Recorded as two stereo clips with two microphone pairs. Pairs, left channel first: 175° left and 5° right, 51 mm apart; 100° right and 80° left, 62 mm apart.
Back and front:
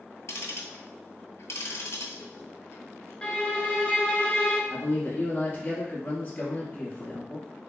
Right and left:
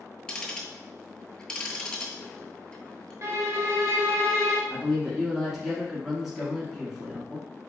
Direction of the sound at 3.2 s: 105° left.